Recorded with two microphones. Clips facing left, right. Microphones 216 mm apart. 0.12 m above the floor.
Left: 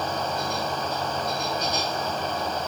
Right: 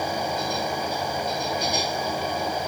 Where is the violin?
I don't hear a violin.